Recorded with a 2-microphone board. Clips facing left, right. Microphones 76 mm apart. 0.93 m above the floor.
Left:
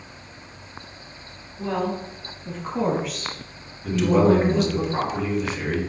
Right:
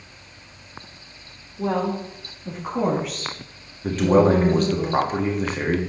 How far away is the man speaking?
About 1.3 m.